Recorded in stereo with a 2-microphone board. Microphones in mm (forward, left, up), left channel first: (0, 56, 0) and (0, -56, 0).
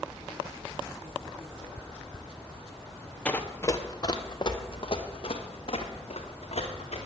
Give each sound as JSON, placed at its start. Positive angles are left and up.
{"t": 3.2, "sound": "running footsteps", "side_deg": 10, "distance_m": 0.8}